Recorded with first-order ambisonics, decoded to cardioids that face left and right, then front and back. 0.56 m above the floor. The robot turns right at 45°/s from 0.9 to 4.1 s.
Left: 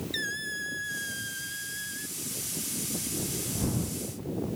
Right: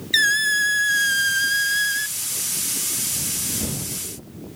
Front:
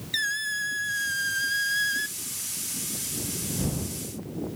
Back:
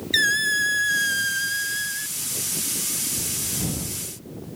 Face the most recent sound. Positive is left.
turn(degrees=25)